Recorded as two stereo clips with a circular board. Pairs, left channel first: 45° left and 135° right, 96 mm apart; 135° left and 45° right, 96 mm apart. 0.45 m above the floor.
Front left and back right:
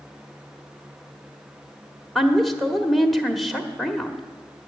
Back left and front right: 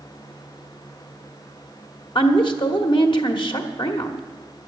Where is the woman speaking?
135° left, 1.3 m.